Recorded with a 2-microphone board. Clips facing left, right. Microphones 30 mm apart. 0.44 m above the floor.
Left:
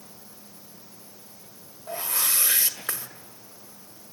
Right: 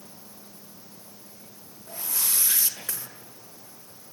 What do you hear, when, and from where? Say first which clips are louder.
1.9 s a whoosh: left 4 dB; 40° left (ahead or behind), 1.7 m